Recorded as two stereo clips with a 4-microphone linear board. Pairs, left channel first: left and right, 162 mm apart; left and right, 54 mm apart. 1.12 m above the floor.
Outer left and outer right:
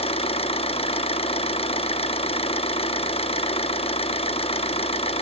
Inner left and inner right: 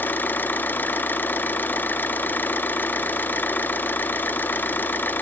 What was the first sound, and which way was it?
An engine running, 35° left (ahead or behind).